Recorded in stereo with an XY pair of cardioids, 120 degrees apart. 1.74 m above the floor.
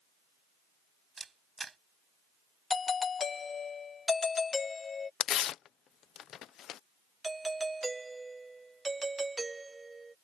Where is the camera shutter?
25° right.